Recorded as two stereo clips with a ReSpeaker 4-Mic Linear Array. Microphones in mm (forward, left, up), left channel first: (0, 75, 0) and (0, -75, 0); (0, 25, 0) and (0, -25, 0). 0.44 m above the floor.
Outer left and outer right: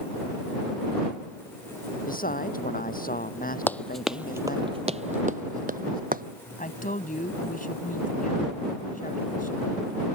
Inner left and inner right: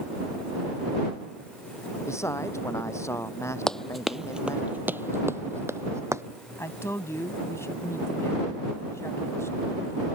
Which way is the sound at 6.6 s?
65° left (ahead or behind).